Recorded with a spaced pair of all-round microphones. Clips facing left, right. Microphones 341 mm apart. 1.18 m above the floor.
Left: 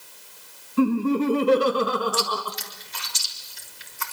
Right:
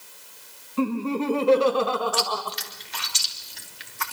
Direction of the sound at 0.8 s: 25° left (ahead or behind).